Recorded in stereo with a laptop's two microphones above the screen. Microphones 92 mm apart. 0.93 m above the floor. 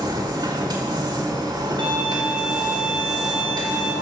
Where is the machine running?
50° right (ahead or behind), 1.2 m.